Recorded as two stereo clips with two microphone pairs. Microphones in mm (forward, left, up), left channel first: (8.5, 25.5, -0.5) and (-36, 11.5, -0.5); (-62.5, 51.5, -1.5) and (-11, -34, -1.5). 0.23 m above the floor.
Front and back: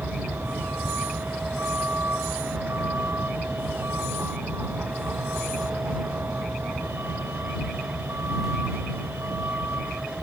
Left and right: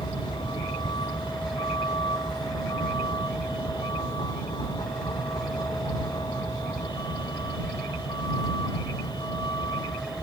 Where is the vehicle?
160° left; by 10.2 s 165° left.